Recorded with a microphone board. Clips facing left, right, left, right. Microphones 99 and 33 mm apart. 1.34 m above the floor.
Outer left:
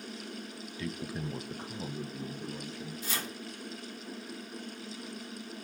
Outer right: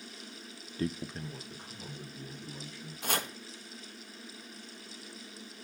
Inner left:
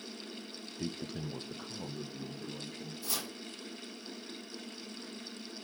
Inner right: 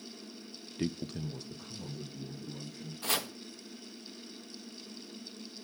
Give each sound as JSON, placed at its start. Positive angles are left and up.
{"t": 0.8, "sound": "a man speaking", "side_deg": -40, "distance_m": 0.5}
{"t": 3.0, "sound": "chopping", "side_deg": -60, "distance_m": 1.6}